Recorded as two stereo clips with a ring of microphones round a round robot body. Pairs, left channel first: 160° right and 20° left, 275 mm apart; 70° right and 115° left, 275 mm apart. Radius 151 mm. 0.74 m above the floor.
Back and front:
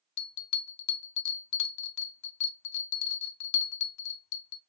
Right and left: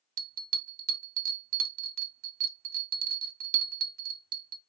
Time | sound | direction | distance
0.2 | a bell | 175° left | 0.6 m